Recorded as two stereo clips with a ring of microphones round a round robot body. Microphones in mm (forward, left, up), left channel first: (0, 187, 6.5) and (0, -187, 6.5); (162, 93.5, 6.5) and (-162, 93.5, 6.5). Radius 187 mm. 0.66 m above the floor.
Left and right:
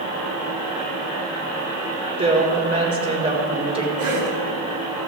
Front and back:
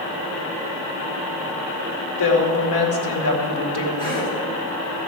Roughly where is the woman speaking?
Ahead.